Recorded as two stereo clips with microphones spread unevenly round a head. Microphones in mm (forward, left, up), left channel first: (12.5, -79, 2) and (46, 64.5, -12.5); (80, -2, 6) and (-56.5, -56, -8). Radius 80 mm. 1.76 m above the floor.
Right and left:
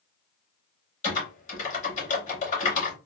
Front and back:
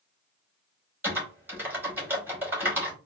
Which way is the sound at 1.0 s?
80° right.